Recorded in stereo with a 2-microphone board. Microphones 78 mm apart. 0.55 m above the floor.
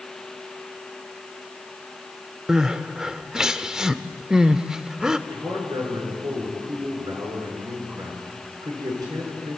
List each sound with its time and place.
2.5 s crying: 10° right (ahead or behind), 0.7 m
5.3 s a man speaking: 60° right (ahead or behind), 7 m